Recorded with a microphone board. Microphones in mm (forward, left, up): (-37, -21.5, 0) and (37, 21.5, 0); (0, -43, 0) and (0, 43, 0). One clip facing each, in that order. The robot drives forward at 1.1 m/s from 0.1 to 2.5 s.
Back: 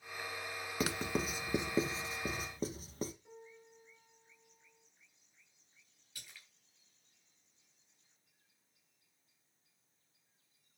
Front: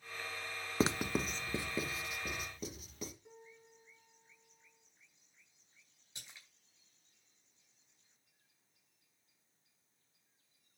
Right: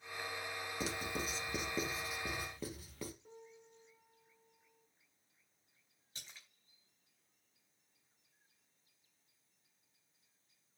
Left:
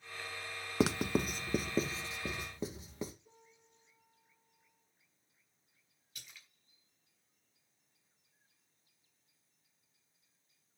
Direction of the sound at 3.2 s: 55° right.